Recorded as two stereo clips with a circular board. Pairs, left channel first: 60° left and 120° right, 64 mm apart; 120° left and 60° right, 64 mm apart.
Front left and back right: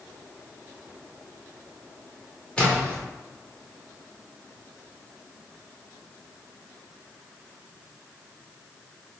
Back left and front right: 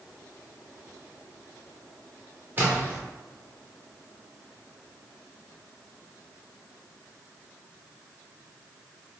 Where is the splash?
10° right, 1.3 m.